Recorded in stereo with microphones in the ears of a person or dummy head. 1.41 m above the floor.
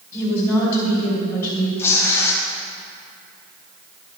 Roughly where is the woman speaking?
Centre.